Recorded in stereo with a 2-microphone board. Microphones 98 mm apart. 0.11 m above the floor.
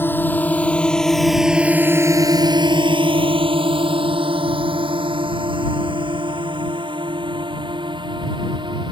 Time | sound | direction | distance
0.0 | a drone | 20° left (ahead or behind) | ?